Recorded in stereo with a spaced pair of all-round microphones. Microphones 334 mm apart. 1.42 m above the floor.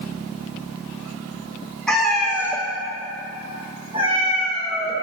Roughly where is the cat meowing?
Centre.